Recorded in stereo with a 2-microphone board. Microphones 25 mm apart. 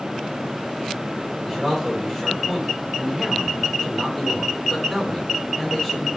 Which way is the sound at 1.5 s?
15° left (ahead or behind).